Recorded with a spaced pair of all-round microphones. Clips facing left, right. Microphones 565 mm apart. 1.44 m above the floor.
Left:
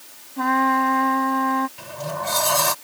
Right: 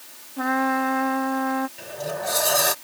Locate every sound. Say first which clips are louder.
0.4 s a trumpet: left 1 dB; 25° left (ahead or behind)
1.8 s a sliding door: right 1 dB; 30° left (ahead or behind)